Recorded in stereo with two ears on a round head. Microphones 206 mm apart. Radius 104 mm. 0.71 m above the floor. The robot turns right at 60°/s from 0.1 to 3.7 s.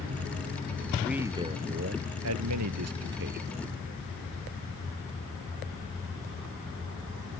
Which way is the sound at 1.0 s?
Straight behind.